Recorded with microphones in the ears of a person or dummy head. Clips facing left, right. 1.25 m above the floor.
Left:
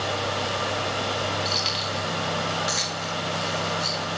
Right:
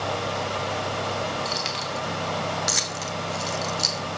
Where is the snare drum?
No snare drum in this recording.